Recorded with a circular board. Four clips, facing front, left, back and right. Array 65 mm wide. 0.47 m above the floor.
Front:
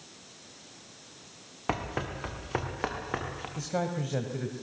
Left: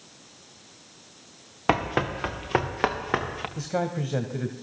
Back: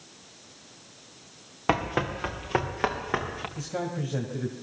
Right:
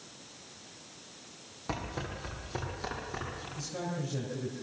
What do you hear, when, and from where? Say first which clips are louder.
1.7 s running footsteps: left 13 dB, back 6 dB; 110° left, 2 m; by 3.5 s 105° left, 3.5 m
3.6 s a man speaking: left 9 dB, front 2 dB; 80° left, 2.5 m